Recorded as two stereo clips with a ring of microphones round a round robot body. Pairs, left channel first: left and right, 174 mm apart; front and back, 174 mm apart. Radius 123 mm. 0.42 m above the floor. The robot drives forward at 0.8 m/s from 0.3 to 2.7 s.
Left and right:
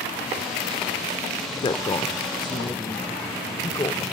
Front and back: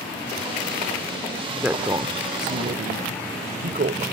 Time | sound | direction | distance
1.6 | a woman speaking | 100° left | ?